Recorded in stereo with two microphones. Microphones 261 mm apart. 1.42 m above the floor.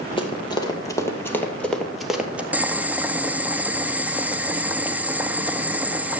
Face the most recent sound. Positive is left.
turn(degrees=-5)  # may be behind; listen again after turning